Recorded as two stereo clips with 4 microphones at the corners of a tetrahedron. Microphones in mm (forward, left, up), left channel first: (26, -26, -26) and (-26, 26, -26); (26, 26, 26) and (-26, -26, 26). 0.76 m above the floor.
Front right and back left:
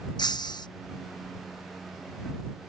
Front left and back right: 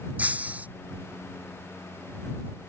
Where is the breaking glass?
65° right.